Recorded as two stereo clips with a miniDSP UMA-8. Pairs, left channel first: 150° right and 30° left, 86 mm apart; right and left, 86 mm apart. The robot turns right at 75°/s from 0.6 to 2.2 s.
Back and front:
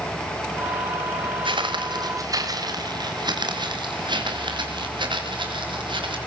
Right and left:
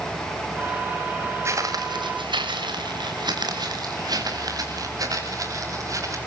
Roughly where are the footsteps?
Ahead left.